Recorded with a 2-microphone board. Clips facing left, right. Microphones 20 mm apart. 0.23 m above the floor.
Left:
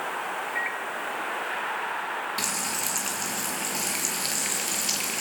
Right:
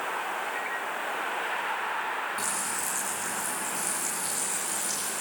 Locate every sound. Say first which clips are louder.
0.6 s a microwave: left 3 dB; 15° left (ahead or behind), 0.8 m
2.4 s frying: left 2 dB; 55° left (ahead or behind), 4 m